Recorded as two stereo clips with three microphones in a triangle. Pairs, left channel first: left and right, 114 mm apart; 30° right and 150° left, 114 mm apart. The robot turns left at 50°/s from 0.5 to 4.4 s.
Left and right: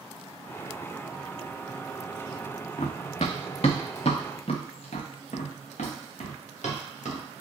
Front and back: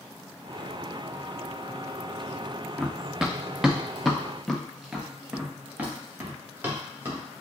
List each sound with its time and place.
2.8 s running footsteps: 60° left, 0.6 m; by 7.2 s 80° left, 2 m